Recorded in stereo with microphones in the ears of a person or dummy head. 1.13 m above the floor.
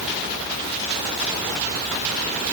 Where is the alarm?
I don't hear an alarm.